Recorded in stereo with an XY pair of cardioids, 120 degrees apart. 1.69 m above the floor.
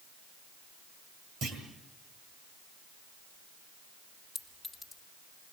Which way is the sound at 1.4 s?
60° right.